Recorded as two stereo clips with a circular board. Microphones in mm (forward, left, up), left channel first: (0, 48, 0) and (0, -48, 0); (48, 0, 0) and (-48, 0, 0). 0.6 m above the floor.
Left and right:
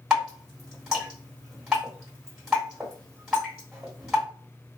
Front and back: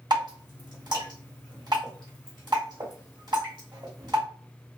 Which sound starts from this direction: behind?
Dripping, at 0.1 s.